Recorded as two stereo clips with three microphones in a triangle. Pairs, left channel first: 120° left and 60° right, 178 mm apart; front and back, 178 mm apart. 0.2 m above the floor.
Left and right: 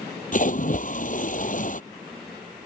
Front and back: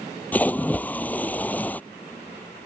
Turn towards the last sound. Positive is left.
turn(degrees=80)